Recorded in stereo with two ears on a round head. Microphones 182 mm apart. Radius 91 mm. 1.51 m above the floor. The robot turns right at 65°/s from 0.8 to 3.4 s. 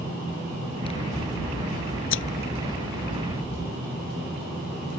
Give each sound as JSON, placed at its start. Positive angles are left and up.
{"t": 0.8, "sound": "scissors", "azimuth_deg": 25}